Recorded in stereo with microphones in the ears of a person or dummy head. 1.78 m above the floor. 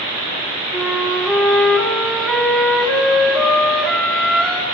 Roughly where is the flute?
Centre.